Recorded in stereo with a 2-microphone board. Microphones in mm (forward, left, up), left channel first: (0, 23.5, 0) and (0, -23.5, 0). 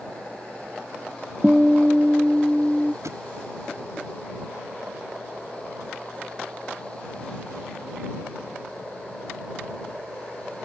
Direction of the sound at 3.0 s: 85° right.